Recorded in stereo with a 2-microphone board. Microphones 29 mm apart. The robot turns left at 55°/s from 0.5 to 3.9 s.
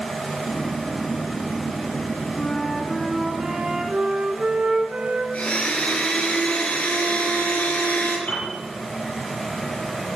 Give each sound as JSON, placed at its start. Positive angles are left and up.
{"t": 2.4, "sound": "a flute", "azimuth_deg": 35, "distance_m": 1.5}
{"t": 5.3, "sound": "a blender", "side_deg": 55, "distance_m": 4.0}
{"t": 8.3, "sound": "a piano", "side_deg": 70, "distance_m": 5.5}